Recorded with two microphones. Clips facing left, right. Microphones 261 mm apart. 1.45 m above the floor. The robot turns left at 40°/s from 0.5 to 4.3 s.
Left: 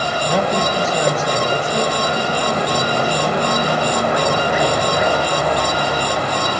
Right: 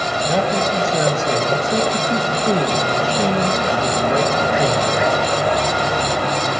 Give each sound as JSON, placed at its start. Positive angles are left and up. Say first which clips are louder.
{"t": 0.2, "sound": "a man speaking", "louder": "even", "azimuth_deg": 0, "distance_m": 1.6}